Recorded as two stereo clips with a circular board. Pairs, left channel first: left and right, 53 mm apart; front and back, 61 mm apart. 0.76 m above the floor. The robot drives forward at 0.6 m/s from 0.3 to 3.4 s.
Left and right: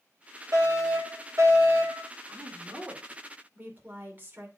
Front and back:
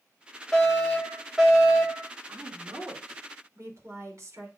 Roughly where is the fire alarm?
Right.